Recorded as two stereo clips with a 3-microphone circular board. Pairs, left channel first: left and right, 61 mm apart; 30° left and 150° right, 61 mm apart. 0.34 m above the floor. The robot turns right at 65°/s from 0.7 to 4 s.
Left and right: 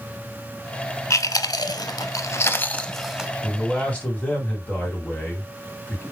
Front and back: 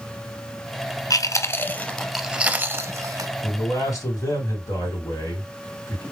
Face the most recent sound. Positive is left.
turn(degrees=25)